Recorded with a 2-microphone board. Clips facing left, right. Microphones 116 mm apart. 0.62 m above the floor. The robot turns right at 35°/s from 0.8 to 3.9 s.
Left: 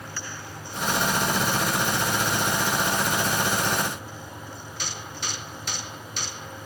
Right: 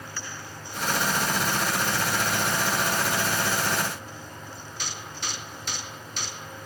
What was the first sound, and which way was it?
Only background noise.